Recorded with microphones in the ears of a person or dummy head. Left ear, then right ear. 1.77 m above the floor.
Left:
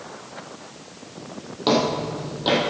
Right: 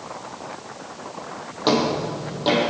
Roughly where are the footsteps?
Centre.